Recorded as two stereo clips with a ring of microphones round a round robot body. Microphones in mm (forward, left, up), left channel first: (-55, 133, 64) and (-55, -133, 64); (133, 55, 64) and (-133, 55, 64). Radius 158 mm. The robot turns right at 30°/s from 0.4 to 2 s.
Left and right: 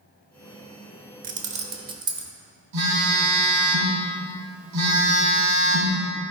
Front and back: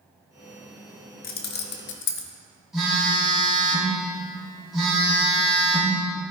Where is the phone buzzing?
90° right, 4 m.